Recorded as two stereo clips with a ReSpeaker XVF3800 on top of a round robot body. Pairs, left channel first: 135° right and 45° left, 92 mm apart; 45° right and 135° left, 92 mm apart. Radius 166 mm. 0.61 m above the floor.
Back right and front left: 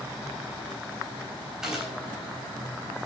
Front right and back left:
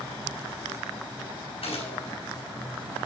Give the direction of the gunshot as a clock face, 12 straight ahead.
1 o'clock.